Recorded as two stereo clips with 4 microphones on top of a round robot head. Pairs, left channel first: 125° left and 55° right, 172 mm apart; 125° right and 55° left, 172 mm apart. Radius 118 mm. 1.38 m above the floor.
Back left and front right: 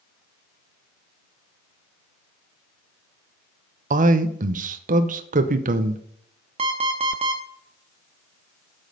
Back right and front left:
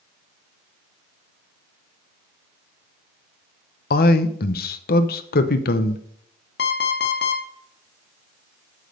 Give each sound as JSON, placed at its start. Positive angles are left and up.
{"t": 3.9, "sound": "a man speaking", "azimuth_deg": -95, "distance_m": 0.8}
{"t": 6.6, "sound": "an alarm clock", "azimuth_deg": -105, "distance_m": 1.1}